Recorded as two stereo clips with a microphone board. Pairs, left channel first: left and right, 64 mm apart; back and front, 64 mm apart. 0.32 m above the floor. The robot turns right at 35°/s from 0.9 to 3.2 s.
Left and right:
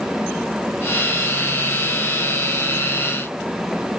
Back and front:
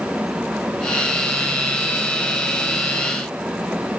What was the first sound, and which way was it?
Only background noise.